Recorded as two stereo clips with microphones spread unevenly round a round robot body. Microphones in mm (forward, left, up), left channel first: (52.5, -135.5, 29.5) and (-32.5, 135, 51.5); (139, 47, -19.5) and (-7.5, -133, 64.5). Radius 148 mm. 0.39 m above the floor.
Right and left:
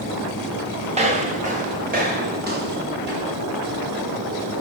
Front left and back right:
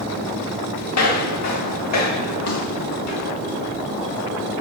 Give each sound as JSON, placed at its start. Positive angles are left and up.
{"t": 0.9, "sound": "footsteps", "azimuth_deg": 40, "distance_m": 3.0}